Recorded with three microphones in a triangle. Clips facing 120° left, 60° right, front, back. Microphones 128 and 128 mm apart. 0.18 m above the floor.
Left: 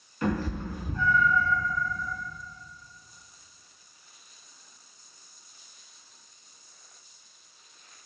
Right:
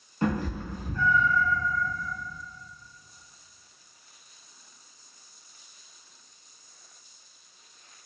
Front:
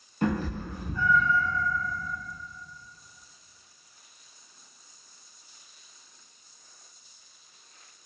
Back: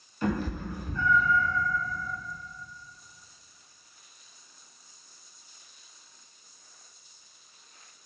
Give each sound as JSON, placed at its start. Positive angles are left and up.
{"t": 0.2, "sound": "a cat meowing", "azimuth_deg": -10, "distance_m": 0.7}